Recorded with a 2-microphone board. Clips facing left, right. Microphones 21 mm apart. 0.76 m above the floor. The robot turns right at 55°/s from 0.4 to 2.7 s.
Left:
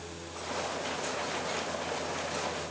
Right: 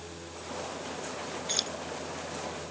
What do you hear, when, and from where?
1.5 s keys jangling: 85° right; by 1.7 s 70° right (ahead or behind)